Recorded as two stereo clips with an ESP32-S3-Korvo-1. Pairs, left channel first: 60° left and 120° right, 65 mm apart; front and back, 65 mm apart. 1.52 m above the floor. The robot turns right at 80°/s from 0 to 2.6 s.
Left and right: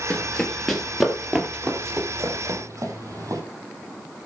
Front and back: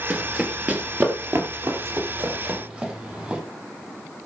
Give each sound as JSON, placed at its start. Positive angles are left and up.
{"t": 0.1, "sound": "running footsteps", "azimuth_deg": 120, "distance_m": 1.6}